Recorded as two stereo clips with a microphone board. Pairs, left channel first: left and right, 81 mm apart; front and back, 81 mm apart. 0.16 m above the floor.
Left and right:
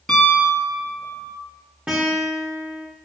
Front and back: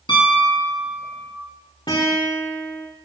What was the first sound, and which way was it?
A piano, 5° left.